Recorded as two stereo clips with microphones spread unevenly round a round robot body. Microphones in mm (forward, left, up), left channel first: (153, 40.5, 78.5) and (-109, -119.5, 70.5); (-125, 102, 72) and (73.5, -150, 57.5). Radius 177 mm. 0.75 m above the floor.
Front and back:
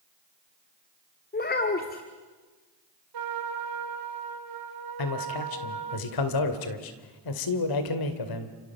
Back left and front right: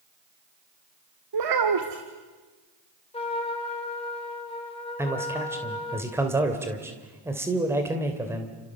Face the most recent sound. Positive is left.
turn(degrees=30)